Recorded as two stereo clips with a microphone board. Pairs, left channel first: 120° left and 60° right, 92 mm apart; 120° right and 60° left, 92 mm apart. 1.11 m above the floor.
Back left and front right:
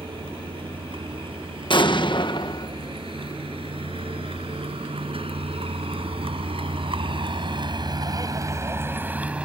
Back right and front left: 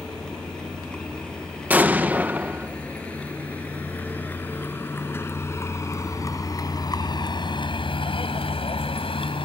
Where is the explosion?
130° left.